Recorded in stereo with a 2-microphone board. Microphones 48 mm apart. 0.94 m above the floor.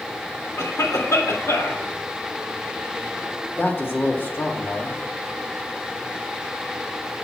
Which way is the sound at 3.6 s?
45° left (ahead or behind).